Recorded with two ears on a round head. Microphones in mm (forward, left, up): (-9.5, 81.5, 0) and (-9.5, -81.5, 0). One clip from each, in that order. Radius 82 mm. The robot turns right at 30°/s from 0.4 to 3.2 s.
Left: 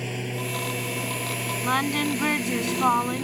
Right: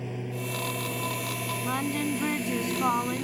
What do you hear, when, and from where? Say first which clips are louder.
0.0 s a lawn mower: left 5 dB; 70° left (ahead or behind); by 3.2 s 5° left (ahead or behind)
1.6 s singing: left 8 dB; 120° left; by 3.2 s 170° left